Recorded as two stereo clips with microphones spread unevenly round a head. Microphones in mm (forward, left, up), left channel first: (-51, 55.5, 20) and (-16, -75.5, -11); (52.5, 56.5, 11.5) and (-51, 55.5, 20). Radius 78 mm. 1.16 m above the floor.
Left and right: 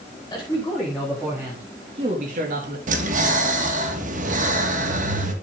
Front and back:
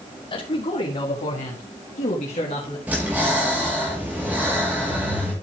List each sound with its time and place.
0.3 s a man speaking: 30° left, 3.5 m; by 2.8 s 55° right, 2.5 m
2.9 s breathing: 100° right, 2.5 m